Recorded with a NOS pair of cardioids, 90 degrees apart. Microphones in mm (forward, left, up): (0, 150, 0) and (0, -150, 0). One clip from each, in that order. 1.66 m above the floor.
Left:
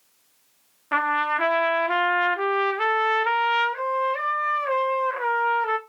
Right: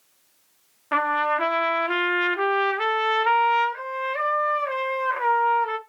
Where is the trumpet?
Straight ahead, 0.5 m.